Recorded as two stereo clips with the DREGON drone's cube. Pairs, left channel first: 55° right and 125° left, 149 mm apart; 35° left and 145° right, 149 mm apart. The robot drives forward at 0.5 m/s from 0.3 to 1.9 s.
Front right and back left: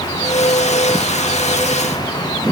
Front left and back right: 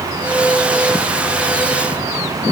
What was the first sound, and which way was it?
Only background noise.